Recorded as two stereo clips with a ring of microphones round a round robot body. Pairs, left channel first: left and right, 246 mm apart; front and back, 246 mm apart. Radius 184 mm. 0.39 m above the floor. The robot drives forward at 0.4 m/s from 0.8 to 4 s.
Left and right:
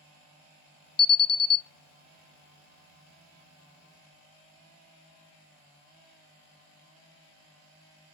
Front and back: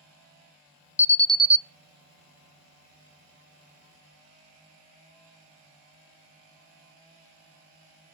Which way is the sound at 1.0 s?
75° left.